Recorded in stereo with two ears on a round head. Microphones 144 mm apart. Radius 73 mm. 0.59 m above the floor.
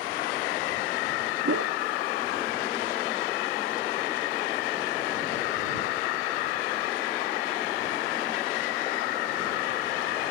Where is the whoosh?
70° right (ahead or behind).